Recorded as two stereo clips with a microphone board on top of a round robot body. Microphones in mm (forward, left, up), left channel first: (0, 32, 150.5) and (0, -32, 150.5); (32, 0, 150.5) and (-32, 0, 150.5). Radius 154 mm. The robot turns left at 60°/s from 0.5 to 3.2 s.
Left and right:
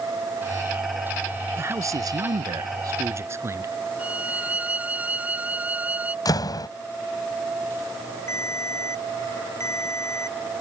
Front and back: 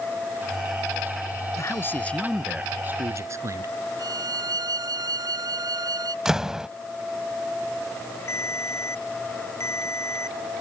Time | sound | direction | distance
1.6 | a man speaking | 40° right | ?
4.0 | a violin | 160° right | ?
6.2 | a door slam | 100° left | ?
8.3 | a ringtone | 45° left | ?